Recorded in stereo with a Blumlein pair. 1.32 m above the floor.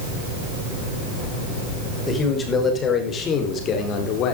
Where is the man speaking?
15° left, 5 m; by 4.3 s 35° left, 3.5 m.